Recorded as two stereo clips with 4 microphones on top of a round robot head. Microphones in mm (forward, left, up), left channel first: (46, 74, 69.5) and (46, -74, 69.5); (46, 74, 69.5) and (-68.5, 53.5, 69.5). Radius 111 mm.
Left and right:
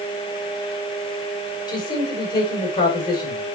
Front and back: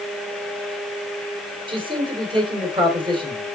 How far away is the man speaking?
About 3 m.